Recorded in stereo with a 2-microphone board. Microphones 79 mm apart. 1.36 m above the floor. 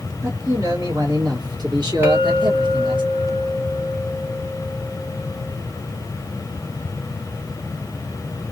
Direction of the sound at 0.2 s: 45° right (ahead or behind).